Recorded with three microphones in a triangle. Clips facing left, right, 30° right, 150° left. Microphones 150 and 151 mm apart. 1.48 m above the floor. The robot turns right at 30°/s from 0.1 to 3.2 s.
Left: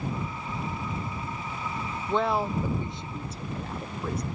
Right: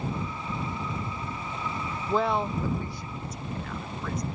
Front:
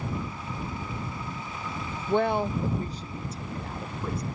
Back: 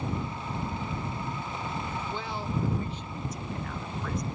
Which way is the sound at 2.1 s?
5° right.